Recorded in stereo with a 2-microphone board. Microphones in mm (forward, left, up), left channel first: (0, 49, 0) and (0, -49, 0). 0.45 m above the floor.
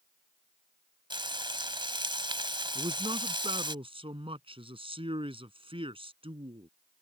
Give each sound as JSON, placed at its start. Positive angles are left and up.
{"t": 1.1, "sound": "frying", "side_deg": -55}
{"t": 2.8, "sound": "a man speaking", "side_deg": -70}